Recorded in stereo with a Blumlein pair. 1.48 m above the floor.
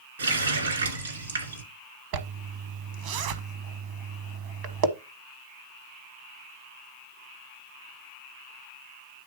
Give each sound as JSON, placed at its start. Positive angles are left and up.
{"t": 0.2, "sound": "a running tap", "azimuth_deg": -70, "distance_m": 2.0}
{"t": 2.1, "sound": "a zipper", "azimuth_deg": -45, "distance_m": 1.0}